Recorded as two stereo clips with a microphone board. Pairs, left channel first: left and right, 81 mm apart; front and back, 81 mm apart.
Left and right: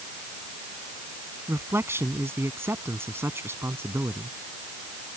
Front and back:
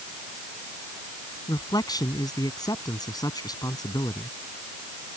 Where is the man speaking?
30° right.